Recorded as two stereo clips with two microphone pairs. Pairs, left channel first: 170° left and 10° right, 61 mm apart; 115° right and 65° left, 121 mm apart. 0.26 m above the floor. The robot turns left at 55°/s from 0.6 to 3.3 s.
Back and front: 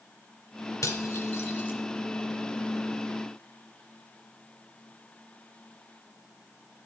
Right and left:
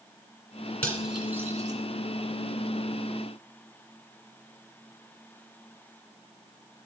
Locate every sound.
0.8 s cutlery clinking: 165° left, 1.9 m; by 1.8 s 115° left, 1.9 m